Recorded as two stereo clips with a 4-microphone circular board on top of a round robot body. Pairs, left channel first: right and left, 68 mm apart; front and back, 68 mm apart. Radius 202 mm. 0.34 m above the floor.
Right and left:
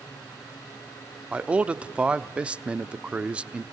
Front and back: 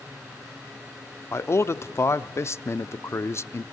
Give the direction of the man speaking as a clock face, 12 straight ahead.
11 o'clock.